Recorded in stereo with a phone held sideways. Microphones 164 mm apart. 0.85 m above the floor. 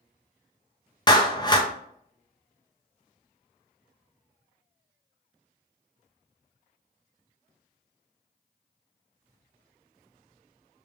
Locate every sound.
1.1 s a clap: 25° left (ahead or behind), 0.7 m